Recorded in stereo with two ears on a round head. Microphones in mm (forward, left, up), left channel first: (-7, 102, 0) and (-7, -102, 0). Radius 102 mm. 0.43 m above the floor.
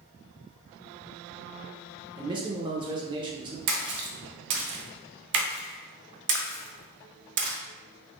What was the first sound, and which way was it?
A man speaking, 20° right (ahead or behind).